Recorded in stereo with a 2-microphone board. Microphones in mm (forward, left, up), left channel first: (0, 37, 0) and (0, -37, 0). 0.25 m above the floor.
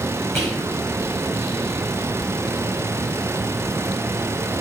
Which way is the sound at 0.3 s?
30° left (ahead or behind).